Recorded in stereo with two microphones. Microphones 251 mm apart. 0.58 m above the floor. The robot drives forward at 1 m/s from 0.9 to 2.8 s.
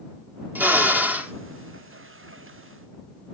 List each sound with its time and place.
0.6 s a drill: 5° right (ahead or behind), 1.1 m